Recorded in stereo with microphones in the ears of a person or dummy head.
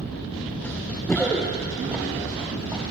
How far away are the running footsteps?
About 1.1 m.